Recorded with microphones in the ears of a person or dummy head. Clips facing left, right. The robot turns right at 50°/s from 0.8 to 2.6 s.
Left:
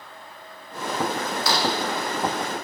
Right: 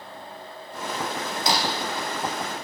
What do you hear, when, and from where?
1.5 s breaking glass: 25° right (ahead or behind), 5 m; by 1.8 s 10° right (ahead or behind), 5 m